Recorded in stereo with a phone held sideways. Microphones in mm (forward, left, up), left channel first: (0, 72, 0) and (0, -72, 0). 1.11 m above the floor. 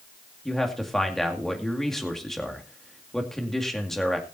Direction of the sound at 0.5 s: 5° left (ahead or behind).